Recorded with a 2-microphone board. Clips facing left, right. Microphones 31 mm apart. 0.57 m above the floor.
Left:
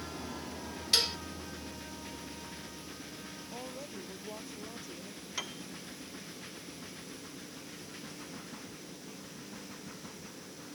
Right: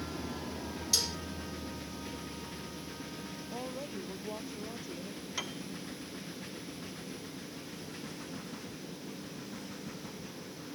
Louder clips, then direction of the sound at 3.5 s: Right 4 dB; 15° right (ahead or behind).